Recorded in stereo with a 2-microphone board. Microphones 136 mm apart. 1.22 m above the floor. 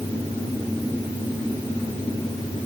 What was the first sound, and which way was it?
Only background noise.